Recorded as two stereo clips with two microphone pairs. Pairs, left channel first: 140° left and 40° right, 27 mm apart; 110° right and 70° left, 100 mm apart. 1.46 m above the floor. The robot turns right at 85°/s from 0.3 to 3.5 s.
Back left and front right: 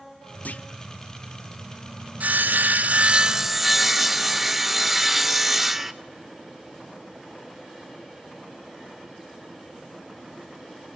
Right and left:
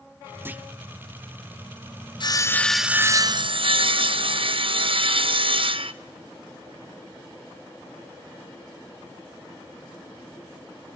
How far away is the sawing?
About 0.7 m.